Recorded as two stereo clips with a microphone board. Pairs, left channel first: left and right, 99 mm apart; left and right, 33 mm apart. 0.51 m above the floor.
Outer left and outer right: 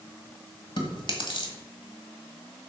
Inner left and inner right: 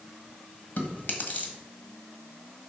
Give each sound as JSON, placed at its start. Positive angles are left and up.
{"t": 0.8, "sound": "chewing", "side_deg": 60, "distance_m": 1.6}